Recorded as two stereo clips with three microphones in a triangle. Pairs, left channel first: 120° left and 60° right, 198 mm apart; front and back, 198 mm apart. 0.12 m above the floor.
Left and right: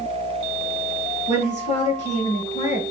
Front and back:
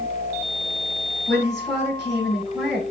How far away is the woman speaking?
About 1.5 m.